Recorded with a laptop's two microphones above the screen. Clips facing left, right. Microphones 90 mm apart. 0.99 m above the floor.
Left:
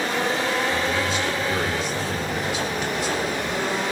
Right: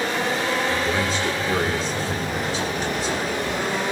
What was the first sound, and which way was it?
A man speaking, 35° right (ahead or behind).